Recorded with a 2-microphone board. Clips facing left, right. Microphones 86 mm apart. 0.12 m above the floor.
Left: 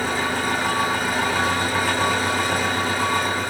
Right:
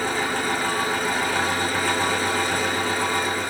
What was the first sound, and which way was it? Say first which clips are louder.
An engine running: left 1 dB; 15° left (ahead or behind).